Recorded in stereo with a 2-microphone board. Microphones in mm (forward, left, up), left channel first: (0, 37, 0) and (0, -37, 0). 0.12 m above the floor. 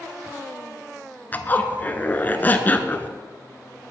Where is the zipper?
25° left (ahead or behind), 0.6 m.